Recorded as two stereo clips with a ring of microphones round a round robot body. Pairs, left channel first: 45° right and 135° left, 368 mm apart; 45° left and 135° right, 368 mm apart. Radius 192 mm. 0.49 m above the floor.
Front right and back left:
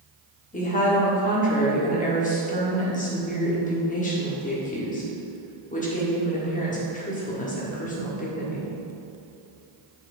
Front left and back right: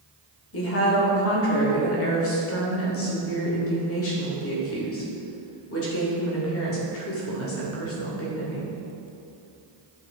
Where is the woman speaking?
15° left, 1.6 m.